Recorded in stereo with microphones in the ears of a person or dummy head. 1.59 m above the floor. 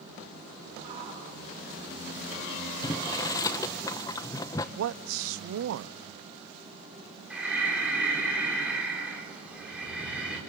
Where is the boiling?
15° left (ahead or behind), 1.0 m.